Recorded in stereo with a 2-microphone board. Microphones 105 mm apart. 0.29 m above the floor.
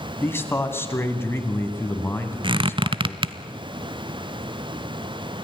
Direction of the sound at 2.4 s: 50° right (ahead or behind).